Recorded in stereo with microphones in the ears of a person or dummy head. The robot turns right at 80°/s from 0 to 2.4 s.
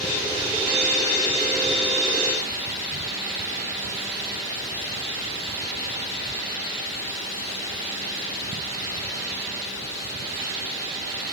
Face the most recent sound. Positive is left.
No sound to turn to.